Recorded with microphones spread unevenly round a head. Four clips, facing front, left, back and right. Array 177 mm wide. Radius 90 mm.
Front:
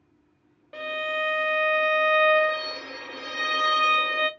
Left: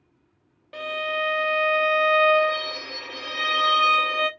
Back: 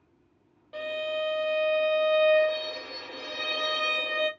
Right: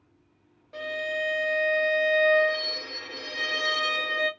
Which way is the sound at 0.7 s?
45° left.